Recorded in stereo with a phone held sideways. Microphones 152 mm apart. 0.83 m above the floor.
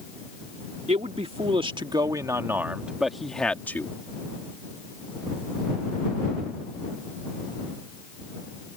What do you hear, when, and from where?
0.9 s a man speaking: 45° right (ahead or behind); by 3.9 s 15° left (ahead or behind)